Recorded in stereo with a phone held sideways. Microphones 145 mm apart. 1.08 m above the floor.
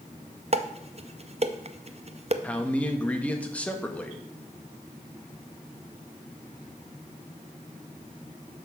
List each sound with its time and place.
0.5 s dishes clattering: 45° right (ahead or behind), 0.6 m
2.4 s a man speaking: 10° left (ahead or behind), 1.1 m